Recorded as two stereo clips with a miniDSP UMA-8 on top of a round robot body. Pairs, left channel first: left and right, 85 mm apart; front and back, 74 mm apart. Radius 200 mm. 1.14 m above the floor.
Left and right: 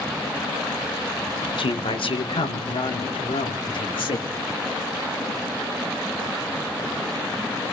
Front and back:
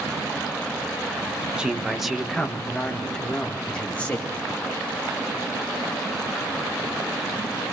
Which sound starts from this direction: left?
A man speaking, at 1.6 s.